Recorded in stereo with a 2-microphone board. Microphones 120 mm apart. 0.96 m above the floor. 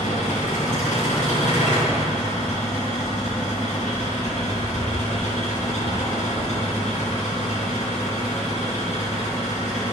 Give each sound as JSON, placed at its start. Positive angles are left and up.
{"t": 0.0, "sound": "an engine running", "side_deg": 85, "distance_m": 7.0}